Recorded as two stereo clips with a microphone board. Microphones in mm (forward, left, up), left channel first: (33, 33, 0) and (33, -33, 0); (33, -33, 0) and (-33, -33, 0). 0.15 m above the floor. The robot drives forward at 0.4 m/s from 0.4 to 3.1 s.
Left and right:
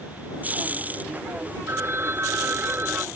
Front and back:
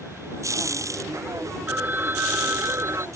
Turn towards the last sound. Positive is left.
turn(degrees=-140)